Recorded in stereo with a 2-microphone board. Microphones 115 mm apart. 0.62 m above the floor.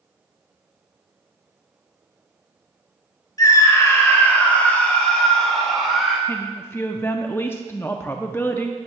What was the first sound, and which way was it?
A scream, 35° left (ahead or behind).